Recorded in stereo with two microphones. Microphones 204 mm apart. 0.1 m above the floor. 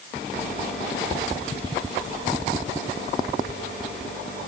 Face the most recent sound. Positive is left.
No sound to turn to.